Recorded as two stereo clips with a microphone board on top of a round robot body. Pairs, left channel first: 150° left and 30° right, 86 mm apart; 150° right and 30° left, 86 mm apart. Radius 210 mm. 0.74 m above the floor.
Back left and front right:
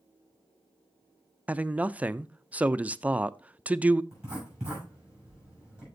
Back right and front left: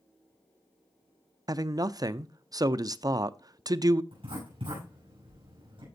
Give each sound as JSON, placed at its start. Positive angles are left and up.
{"t": 1.5, "sound": "a man speaking", "azimuth_deg": 35, "distance_m": 0.6}
{"t": 4.1, "sound": "writing", "azimuth_deg": 50, "distance_m": 7.0}